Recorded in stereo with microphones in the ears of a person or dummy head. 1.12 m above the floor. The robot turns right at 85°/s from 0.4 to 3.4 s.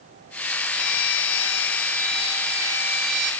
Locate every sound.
0.7 s a violin: 30° left, 0.5 m; by 3.3 s 110° right, 0.5 m